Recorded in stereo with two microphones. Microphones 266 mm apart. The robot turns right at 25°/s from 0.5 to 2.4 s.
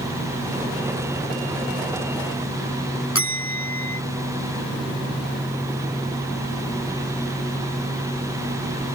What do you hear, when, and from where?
3.1 s a bell: 55° left (ahead or behind)